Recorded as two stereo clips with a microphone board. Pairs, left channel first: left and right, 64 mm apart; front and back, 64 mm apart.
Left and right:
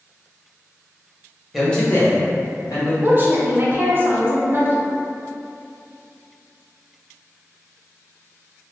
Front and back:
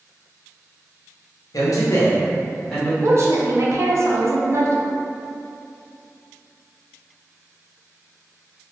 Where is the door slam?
No door slam in this recording.